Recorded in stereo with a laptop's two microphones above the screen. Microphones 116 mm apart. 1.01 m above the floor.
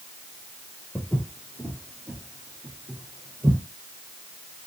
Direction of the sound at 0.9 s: 10° left (ahead or behind).